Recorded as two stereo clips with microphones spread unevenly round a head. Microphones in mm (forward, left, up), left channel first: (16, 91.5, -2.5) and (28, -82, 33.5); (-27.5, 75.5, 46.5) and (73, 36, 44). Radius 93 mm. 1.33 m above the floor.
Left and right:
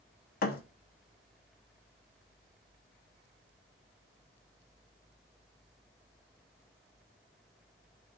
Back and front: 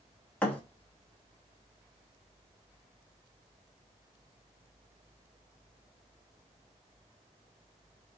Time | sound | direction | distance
0.4 | a thud | 90° left | 0.8 m